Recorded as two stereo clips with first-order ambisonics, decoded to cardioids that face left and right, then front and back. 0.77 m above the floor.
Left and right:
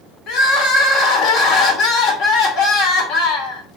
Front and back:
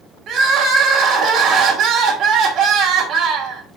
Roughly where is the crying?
Behind left.